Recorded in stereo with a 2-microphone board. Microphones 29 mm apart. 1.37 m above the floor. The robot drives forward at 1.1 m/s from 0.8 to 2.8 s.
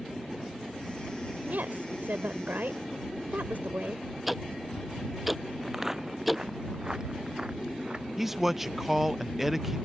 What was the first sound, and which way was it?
A woman speaking, 75° right (ahead or behind).